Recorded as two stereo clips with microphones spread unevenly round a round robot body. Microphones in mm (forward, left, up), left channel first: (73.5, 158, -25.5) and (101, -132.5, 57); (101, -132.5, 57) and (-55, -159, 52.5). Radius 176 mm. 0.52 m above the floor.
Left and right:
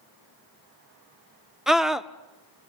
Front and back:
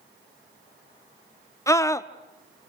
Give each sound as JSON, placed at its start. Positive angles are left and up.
{"t": 1.7, "sound": "a scream", "azimuth_deg": 50, "distance_m": 0.7}